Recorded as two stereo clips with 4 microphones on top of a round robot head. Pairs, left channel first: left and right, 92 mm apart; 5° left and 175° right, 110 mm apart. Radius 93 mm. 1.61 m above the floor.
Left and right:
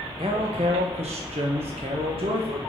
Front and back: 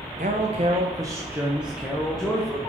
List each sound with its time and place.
0.2 s a man speaking: 140° right, 1.0 m; by 2.6 s 75° right, 1.8 m